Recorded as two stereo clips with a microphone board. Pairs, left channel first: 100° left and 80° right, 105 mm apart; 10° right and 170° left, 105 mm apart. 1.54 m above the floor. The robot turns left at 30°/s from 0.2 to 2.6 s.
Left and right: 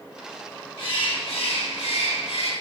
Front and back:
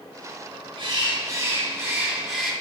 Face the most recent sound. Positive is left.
turn(degrees=80)